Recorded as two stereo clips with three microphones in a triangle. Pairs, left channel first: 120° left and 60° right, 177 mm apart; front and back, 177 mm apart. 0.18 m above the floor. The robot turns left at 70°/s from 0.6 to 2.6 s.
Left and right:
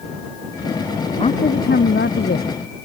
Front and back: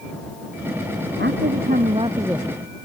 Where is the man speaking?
175° left; by 2.9 s 80° left.